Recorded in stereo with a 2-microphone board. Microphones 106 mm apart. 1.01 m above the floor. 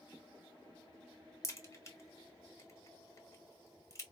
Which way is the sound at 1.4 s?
30° left (ahead or behind).